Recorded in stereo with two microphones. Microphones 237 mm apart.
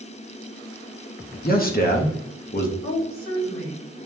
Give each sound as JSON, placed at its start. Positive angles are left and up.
{"t": 1.4, "sound": "a man speaking", "side_deg": 40, "distance_m": 1.0}
{"t": 2.8, "sound": "a woman speaking", "side_deg": 60, "distance_m": 2.5}